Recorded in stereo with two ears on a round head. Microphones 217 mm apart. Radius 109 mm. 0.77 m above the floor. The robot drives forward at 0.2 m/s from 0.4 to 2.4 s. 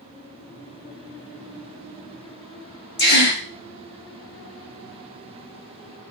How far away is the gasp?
About 0.8 m.